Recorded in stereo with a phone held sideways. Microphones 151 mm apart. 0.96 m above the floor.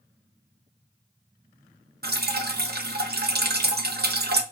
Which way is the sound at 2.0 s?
80° right.